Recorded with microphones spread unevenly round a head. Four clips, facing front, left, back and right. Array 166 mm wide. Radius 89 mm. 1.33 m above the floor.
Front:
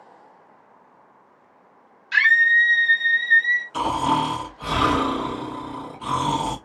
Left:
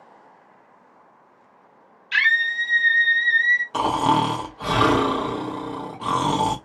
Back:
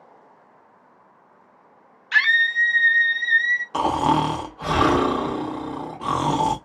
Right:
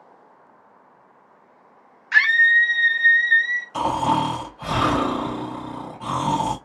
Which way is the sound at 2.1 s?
145° right.